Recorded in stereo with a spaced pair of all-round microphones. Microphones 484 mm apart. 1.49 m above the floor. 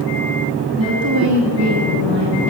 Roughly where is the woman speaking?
Right.